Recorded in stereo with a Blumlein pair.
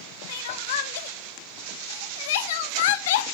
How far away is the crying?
About 1.0 m.